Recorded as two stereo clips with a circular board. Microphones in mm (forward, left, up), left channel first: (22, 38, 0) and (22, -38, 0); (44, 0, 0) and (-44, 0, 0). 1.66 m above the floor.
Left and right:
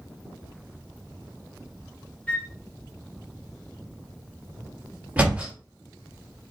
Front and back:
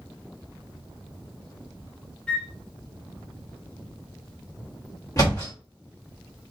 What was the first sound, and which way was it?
A flute, 50° left.